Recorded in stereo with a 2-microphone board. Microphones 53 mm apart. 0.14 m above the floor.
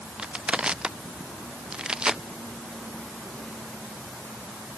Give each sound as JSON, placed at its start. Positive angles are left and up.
{"t": 0.2, "sound": "crushing", "side_deg": -20}